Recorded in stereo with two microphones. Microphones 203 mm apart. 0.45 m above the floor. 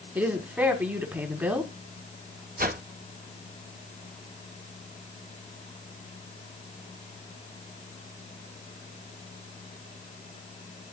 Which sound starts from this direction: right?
A whoosh, at 2.6 s.